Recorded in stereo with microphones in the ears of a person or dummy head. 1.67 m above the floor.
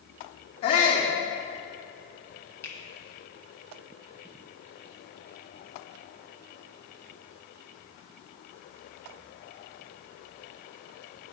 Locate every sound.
0.6 s a shout: 25° left (ahead or behind), 0.9 m
2.6 s a finger snap: 20° left (ahead or behind), 0.8 m